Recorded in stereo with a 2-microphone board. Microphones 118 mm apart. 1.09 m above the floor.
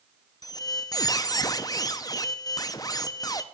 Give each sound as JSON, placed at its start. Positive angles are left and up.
{"t": 0.4, "sound": "a squeak", "side_deg": 30, "distance_m": 0.6}